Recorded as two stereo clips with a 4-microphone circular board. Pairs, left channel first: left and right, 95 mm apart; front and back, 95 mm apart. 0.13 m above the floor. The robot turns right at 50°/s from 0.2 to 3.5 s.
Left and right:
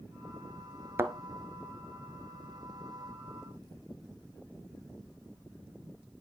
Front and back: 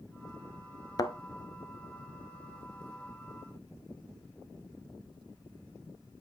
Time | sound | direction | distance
1.0 | a thud | 30° right | 0.6 m